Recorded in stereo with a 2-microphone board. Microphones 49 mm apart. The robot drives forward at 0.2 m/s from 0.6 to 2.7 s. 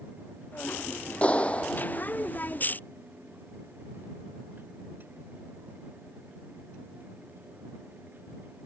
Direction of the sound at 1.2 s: 25° left (ahead or behind).